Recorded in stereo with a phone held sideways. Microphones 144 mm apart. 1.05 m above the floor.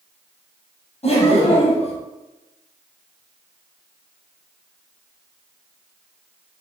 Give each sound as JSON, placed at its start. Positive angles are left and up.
{"t": 1.0, "sound": "laughter", "side_deg": 40, "distance_m": 0.9}